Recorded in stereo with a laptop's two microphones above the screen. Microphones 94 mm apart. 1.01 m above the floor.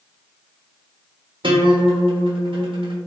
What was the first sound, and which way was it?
A guitar, 55° right (ahead or behind).